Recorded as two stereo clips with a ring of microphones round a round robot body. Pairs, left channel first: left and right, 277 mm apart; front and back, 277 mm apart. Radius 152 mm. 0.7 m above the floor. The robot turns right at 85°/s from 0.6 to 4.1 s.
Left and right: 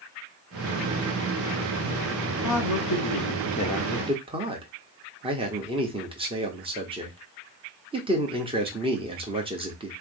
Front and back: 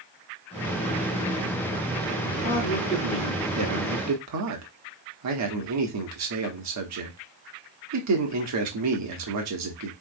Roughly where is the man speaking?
Ahead left.